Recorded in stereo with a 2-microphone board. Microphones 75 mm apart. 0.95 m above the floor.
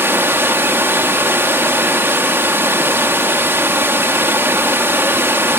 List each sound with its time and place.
0.0 s running water: 30° right (ahead or behind), 0.7 m